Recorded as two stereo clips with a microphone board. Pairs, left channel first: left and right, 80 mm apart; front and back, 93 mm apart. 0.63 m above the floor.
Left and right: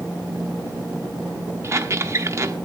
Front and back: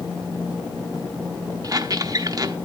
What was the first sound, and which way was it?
A squeak, 140° right.